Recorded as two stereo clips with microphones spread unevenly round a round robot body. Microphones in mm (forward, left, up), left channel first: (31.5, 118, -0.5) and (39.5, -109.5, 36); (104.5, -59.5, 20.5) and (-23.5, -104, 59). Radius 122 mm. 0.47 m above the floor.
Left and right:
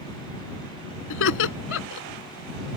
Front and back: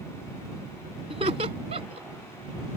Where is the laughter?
135° left.